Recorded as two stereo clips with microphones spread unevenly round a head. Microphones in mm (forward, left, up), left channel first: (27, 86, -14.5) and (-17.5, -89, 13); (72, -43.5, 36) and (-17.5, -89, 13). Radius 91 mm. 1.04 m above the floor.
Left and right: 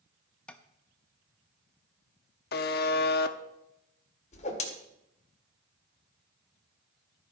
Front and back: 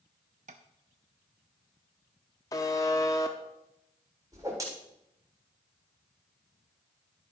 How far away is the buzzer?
About 0.6 m.